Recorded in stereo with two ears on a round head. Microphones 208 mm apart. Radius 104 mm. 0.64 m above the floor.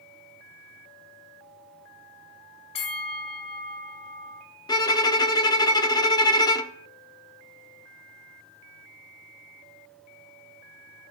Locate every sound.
2.8 s a bell: 25° left (ahead or behind), 1.7 m
4.7 s a violin: 15° left (ahead or behind), 0.6 m